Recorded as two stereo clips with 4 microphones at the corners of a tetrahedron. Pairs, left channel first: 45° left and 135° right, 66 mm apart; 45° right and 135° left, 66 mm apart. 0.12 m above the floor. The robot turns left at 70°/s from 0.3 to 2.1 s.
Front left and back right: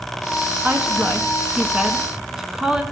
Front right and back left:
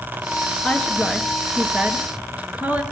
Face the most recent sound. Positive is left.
turn(degrees=155)